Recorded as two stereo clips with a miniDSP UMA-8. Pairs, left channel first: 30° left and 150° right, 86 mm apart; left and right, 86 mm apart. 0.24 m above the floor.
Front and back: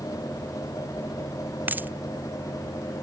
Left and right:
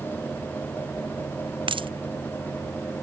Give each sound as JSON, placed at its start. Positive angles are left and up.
{"t": 1.7, "sound": "a dropped coin", "azimuth_deg": -80}